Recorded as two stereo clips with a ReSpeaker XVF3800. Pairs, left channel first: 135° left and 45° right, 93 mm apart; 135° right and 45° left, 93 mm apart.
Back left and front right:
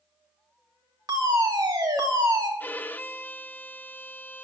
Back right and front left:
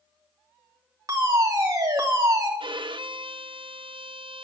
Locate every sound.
1.1 s a fire alarm: 5° right, 3 m
2.6 s a violin: 65° left, 0.7 m